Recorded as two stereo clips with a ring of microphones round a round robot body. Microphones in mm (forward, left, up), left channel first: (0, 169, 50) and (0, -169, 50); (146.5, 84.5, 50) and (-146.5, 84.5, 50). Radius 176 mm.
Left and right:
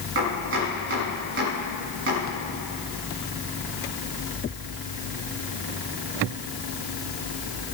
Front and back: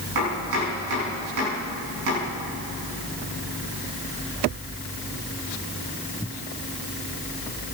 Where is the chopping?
145° right, 6.5 m.